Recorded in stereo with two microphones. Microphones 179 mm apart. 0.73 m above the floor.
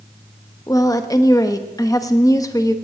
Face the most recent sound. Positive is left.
turn(degrees=20)  # may be behind; listen again after turning